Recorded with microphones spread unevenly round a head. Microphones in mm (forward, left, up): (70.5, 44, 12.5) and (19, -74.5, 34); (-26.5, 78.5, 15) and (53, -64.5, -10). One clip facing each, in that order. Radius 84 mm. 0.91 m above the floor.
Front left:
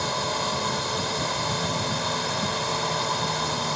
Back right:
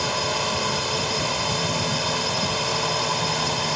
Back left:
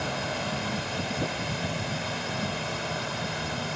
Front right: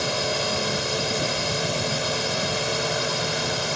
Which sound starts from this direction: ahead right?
A drone, at 0.0 s.